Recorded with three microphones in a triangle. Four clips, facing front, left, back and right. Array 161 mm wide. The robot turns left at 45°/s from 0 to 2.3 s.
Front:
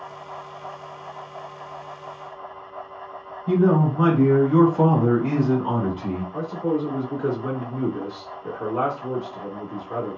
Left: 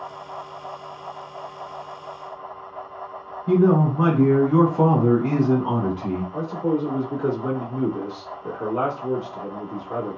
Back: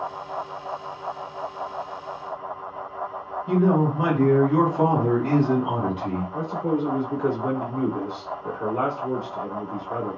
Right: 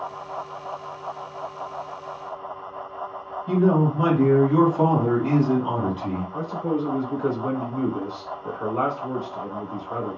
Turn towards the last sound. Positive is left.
turn(degrees=60)